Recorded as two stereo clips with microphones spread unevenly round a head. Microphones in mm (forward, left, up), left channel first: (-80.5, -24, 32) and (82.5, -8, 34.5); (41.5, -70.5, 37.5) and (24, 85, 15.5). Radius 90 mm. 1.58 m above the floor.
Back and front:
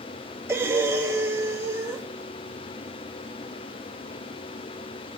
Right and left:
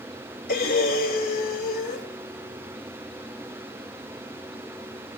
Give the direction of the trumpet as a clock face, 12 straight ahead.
I don't hear a trumpet.